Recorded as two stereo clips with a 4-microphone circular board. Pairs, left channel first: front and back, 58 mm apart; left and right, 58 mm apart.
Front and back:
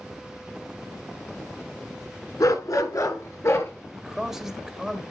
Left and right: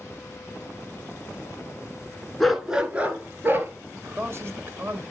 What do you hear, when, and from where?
2.4 s a dog barking: 5° left, 1.2 m; by 3.7 s 40° right, 2.0 m
4.0 s a man speaking: 100° right, 1.4 m